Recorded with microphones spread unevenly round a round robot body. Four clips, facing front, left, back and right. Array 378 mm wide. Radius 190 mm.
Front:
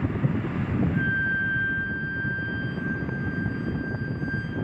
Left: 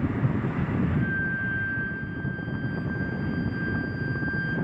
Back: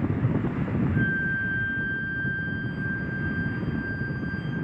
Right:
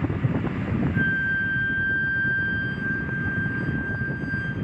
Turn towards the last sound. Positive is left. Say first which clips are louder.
# right 3 dB, front 1 dB
turn(degrees=-60)